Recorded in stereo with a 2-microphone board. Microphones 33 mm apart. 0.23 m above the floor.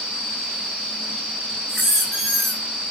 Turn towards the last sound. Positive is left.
turn(degrees=-5)  # may be behind; listen again after turning